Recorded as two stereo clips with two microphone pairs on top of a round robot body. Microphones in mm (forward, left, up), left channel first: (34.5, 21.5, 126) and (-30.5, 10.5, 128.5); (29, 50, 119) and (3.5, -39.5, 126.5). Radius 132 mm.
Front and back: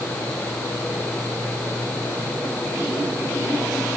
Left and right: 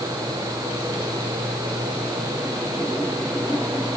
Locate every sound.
Only background noise.